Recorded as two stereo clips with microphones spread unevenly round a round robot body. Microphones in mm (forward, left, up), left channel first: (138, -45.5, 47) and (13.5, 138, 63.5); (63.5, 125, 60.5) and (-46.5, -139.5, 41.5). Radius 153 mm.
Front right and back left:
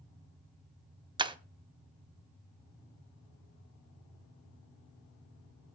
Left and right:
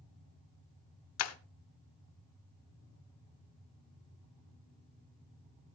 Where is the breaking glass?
55° left, 1.0 m.